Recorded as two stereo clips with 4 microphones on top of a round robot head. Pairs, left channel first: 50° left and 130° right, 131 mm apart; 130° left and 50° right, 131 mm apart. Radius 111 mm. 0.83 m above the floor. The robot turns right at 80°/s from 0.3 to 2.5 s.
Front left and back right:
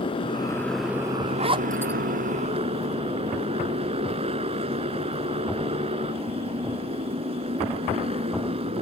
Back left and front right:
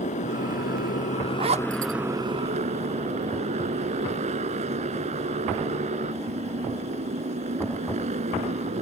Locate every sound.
0.0 s a motorcycle: 100° left; by 8.8 s 85° right
1.4 s a zipper: 95° right; by 1.9 s 50° right